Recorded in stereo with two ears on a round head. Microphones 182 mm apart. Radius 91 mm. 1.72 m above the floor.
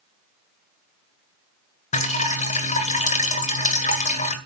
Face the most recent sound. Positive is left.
turn(degrees=35)  # may be behind; listen again after turning